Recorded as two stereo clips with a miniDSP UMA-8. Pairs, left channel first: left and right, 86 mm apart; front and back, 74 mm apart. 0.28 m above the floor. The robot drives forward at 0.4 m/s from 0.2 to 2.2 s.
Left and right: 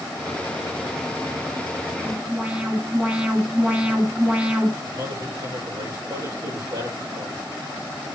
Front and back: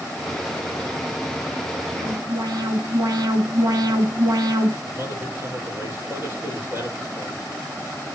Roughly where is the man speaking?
Behind right.